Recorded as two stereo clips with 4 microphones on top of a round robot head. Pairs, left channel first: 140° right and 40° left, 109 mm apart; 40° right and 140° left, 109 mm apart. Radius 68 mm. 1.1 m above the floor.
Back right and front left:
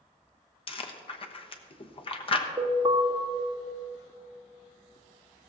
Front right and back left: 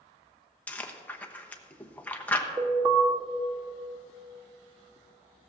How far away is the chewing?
About 1.0 m.